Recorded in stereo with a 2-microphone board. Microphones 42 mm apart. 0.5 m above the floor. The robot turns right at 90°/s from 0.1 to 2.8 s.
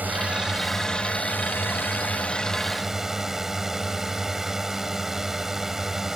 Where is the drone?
55° right; by 6.2 s 170° right.